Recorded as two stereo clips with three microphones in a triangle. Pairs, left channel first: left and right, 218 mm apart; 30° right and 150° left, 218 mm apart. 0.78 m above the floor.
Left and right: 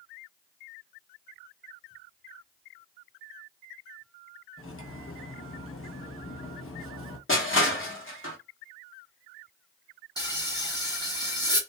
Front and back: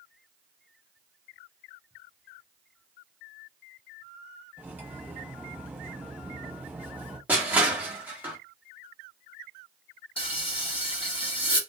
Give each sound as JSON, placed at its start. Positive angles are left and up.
{"t": 4.6, "sound": "cutlery clinking", "azimuth_deg": 70, "distance_m": 0.6}
{"t": 7.3, "sound": "crushing", "azimuth_deg": 70, "distance_m": 0.9}
{"t": 10.2, "sound": "frying", "azimuth_deg": 25, "distance_m": 0.8}